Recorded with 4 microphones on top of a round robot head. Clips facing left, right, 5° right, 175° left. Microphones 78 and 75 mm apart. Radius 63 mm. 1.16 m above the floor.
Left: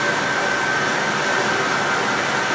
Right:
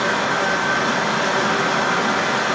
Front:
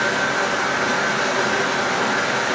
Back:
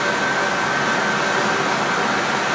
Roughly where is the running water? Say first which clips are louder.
Right 1 dB, back 1 dB; behind right.